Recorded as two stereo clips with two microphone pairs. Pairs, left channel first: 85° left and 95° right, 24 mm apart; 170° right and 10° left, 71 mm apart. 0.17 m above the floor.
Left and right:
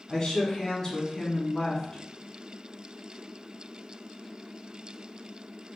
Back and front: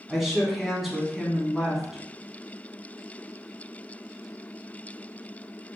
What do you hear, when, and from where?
0.1 s a woman speaking: 95° left, 1.3 m